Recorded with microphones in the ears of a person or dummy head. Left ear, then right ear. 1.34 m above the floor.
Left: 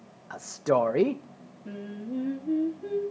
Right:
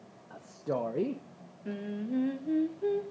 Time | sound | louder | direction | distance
0.3 | a man speaking | left 9 dB | 60° left (ahead or behind) | 0.7 m
1.6 | singing | right 1 dB | 40° right (ahead or behind) | 2 m